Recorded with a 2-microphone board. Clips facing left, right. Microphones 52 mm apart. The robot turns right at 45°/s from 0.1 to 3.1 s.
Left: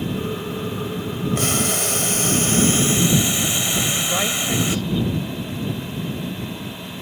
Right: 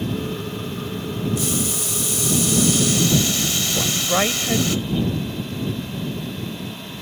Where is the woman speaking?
20° right (ahead or behind).